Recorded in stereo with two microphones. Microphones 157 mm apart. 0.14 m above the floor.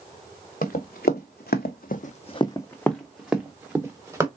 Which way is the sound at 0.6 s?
65° left (ahead or behind).